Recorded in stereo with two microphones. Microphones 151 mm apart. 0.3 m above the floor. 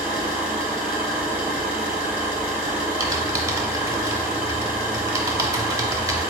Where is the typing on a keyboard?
20° right (ahead or behind), 0.5 m.